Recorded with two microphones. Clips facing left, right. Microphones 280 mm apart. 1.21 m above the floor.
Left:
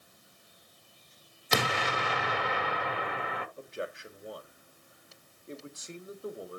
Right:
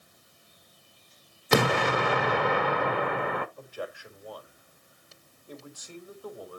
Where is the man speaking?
25° left (ahead or behind), 1.8 m.